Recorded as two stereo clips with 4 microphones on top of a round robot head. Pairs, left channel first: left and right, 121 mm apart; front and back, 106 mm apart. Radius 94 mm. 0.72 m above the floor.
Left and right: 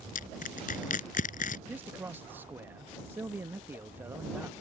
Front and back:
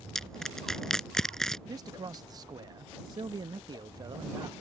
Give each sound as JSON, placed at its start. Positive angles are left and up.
{"t": 0.1, "sound": "crushing", "azimuth_deg": 85}
{"t": 1.7, "sound": "a man speaking", "azimuth_deg": -155}